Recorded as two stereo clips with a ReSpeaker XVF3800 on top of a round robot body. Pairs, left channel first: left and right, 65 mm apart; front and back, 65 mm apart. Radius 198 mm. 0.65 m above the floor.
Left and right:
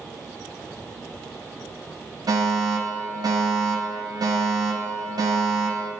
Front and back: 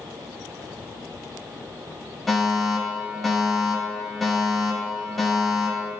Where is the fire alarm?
85° right, 8 m.